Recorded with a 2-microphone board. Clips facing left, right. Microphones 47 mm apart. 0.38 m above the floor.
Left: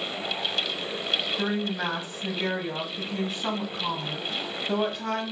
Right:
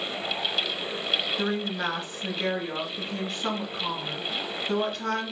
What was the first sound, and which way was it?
A woman speaking, 15° left (ahead or behind).